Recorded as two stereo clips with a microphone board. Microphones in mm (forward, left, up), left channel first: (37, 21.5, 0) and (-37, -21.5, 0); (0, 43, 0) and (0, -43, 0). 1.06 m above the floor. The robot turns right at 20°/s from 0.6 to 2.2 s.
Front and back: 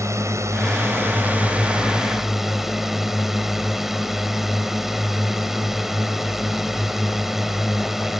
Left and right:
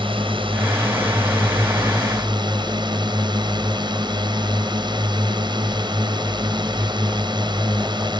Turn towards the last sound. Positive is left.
turn(degrees=-65)